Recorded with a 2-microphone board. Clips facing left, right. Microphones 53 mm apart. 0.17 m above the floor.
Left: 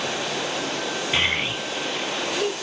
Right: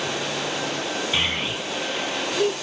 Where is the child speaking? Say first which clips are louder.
Left 4 dB; 35° left (ahead or behind), 2.0 m; by 2.5 s 40° left (ahead or behind), 3 m.